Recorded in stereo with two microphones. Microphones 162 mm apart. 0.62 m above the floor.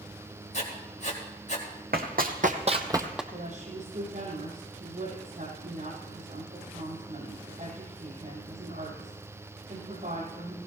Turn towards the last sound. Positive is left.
turn(degrees=-55)  # may be behind; listen again after turning